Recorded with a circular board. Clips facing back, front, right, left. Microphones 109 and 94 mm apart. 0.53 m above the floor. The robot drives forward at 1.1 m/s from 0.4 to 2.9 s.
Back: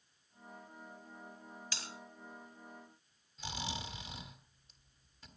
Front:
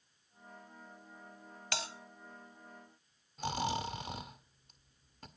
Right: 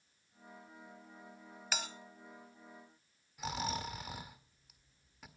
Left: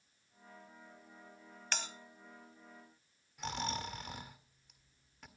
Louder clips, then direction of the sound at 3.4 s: Front 8 dB, right 1 dB; 5° right.